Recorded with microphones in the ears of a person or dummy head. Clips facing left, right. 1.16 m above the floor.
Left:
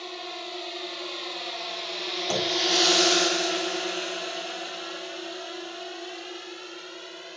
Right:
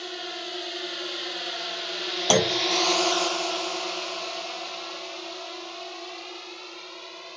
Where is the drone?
10° right (ahead or behind); by 7.4 s 15° left (ahead or behind).